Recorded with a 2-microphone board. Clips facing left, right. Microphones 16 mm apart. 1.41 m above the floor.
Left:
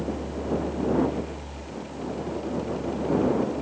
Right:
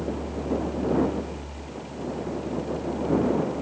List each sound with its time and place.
Only background noise.